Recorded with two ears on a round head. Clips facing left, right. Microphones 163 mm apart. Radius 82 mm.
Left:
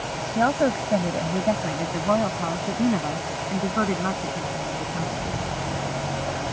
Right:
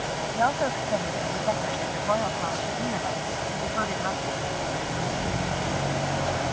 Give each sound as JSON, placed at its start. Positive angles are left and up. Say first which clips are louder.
{"t": 0.3, "sound": "a woman speaking", "louder": "left 5 dB", "side_deg": 45}